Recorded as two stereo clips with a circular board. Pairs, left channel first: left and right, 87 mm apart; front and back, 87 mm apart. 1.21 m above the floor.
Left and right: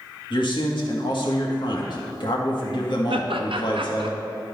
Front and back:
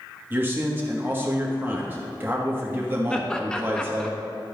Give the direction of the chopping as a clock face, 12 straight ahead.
No chopping in this recording.